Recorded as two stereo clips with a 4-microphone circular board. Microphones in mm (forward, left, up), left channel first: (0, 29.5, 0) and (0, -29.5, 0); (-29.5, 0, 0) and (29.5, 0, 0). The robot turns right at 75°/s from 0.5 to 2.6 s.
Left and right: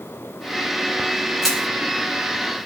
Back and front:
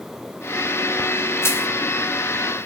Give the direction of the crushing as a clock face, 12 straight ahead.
6 o'clock.